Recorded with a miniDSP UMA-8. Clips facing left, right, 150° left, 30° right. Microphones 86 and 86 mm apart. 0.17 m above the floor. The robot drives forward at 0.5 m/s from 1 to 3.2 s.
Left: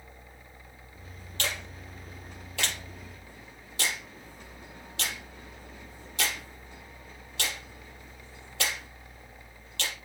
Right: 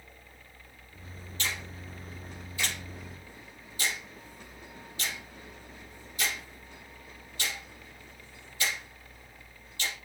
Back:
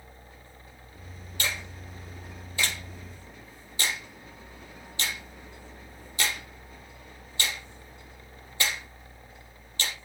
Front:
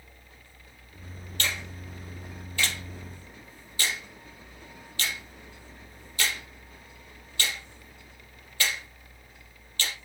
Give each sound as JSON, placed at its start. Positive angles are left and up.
{"t": 1.4, "sound": "a finger snap", "azimuth_deg": 70, "distance_m": 6.0}